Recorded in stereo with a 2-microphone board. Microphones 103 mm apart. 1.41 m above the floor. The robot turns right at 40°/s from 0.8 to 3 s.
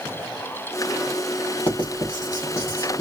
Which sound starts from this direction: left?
Writing, at 1.7 s.